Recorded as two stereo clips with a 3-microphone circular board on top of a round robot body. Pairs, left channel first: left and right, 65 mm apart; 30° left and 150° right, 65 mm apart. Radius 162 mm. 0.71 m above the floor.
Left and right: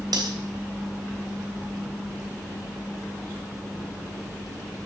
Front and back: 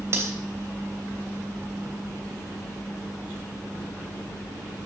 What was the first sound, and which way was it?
Cutlery clinking, 105° right.